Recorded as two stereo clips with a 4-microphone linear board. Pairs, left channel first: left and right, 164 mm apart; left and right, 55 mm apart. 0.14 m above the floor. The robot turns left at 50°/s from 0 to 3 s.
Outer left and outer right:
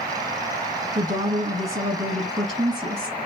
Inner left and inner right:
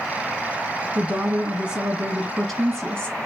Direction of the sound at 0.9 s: 25° right (ahead or behind).